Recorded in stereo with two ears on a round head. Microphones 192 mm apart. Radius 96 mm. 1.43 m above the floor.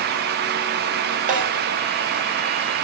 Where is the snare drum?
40° right (ahead or behind), 5.5 m.